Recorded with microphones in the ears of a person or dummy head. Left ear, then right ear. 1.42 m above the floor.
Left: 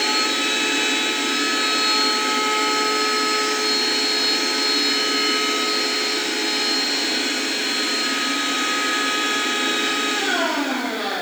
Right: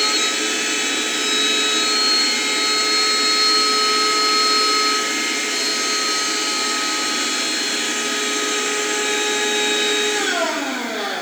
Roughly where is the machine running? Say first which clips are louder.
Right 1 dB; right.